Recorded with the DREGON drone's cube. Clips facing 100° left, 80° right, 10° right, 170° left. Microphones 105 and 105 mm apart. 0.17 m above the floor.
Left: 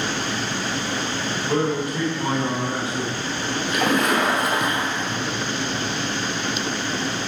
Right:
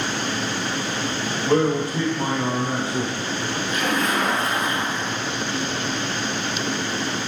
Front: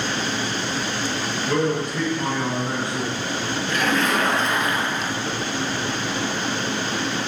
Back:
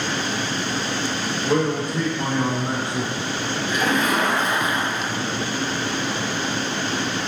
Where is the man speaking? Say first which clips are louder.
Right 3 dB, back 1 dB; 130° right, 3.5 m.